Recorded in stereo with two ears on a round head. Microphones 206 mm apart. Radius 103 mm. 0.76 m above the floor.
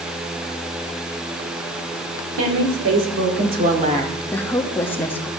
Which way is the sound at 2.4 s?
75° right (ahead or behind).